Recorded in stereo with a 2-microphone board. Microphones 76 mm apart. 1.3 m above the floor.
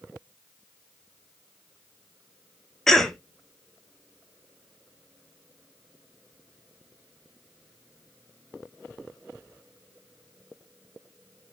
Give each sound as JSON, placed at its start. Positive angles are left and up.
{"t": 2.9, "sound": "a cough", "side_deg": 5, "distance_m": 1.0}